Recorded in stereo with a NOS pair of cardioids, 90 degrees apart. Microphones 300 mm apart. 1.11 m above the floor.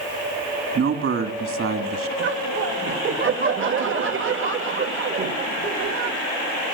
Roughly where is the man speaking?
Ahead right.